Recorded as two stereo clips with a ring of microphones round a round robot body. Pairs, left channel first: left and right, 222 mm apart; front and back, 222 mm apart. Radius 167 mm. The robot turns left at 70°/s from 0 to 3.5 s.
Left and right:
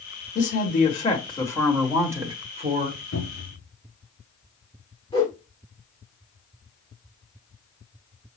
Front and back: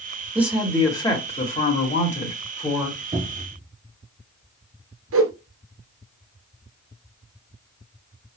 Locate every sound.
0.3 s a woman speaking: 105° left, 1.6 m; by 3.0 s 80° right, 1.6 m
3.1 s a cupboard door: 125° left, 4 m; by 3.6 s 95° left, 4 m
5.1 s a whoosh: 165° left, 1.2 m